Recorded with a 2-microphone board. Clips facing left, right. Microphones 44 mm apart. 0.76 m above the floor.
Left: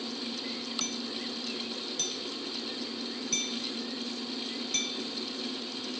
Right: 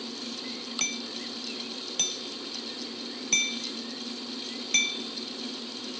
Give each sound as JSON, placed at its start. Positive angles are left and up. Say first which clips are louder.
{"t": 0.8, "sound": "hammering", "louder": "right 1 dB", "side_deg": -50}